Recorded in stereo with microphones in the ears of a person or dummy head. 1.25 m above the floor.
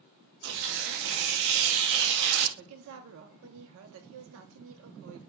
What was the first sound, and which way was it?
Tearing paper, 70° right (ahead or behind).